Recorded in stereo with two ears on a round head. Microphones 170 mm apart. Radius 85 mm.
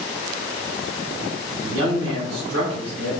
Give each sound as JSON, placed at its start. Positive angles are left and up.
{"t": 1.6, "sound": "a man speaking", "side_deg": -80, "distance_m": 5.5}